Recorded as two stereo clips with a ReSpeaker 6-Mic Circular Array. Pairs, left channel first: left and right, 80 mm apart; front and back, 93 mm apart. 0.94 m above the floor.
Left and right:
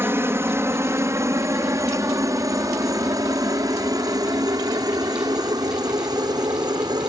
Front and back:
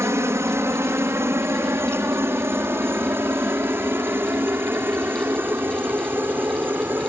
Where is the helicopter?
135° right; by 7.1 s 115° right.